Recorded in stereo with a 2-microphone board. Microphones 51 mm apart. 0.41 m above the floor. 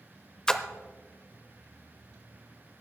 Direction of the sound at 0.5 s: 15° left (ahead or behind).